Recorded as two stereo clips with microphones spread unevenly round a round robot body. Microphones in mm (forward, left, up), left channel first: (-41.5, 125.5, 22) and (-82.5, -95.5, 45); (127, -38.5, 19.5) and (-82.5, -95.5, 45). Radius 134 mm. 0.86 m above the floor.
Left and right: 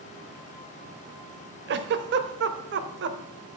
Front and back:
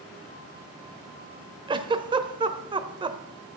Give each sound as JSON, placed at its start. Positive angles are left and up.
{"t": 1.7, "sound": "a giggle", "azimuth_deg": -105, "distance_m": 0.8}